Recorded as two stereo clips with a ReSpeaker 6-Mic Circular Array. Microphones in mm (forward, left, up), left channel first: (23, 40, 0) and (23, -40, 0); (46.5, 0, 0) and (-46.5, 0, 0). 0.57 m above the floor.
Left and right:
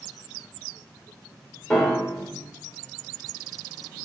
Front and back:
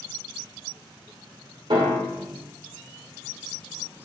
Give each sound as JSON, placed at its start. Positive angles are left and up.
{"t": 1.7, "sound": "a piano", "azimuth_deg": 170, "distance_m": 0.9}